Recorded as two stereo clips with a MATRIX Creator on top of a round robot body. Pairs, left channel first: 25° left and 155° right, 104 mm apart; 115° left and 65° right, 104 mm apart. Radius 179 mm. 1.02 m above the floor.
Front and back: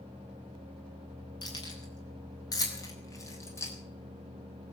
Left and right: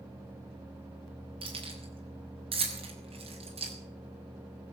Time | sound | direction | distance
1.4 | keys jangling | 30° right | 6 m